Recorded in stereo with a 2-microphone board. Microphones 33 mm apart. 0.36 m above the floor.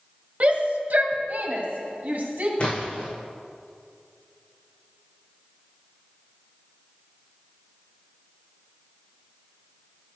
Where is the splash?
35° left (ahead or behind), 3.5 m.